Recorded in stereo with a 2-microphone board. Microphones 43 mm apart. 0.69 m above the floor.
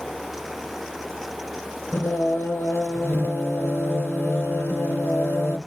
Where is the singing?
70° left (ahead or behind), 3 m.